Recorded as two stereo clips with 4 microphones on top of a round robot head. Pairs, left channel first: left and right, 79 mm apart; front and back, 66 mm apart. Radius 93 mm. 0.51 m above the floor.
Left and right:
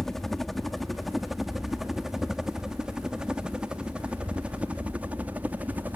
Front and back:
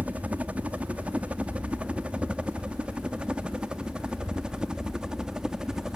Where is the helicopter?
170° left; by 6.0 s 110° right.